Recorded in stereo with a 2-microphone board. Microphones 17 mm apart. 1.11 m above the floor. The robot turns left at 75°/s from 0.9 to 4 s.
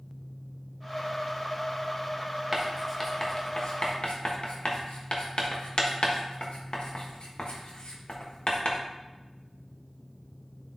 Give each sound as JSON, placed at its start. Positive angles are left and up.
{"t": 2.5, "sound": "writing", "side_deg": -20, "distance_m": 1.2}